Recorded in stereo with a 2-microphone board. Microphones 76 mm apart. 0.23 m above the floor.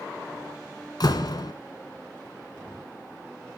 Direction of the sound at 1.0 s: 60° left (ahead or behind).